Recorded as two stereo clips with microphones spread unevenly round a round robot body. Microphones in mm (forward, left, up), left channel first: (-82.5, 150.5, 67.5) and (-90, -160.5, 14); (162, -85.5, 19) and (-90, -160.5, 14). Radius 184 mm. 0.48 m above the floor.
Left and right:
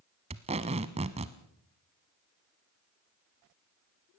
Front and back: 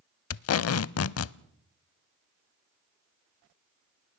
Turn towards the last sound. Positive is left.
turn(degrees=-15)